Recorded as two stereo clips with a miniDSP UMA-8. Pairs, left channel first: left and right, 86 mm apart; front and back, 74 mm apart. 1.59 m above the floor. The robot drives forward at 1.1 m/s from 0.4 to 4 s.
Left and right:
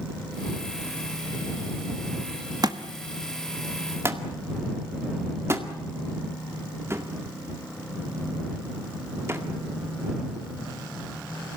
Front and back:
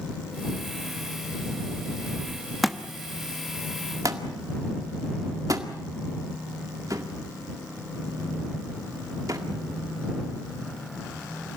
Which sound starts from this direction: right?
A thud, at 2.6 s.